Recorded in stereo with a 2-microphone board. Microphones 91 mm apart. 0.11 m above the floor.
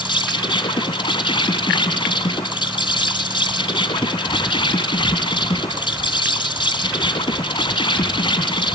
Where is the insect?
65° left (ahead or behind), 2.5 m.